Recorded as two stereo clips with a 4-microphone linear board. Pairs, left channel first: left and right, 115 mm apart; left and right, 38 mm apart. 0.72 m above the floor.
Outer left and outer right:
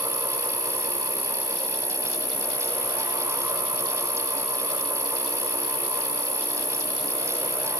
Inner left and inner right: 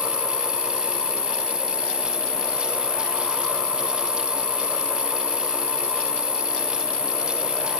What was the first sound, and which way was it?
An insect, 30° left (ahead or behind).